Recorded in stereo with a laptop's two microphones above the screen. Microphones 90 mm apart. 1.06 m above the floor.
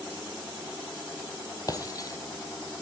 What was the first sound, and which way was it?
Breaking glass, 40° left (ahead or behind).